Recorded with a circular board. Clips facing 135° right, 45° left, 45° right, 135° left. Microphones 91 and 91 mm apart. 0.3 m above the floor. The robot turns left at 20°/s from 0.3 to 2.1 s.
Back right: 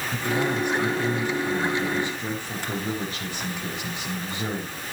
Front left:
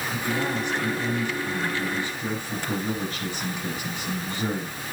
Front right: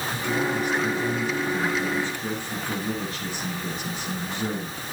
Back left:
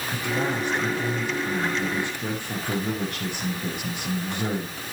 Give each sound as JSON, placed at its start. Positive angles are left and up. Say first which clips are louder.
{"t": 0.1, "sound": "a man speaking", "louder": "back right 3 dB, even", "azimuth_deg": -170, "distance_m": 5.5}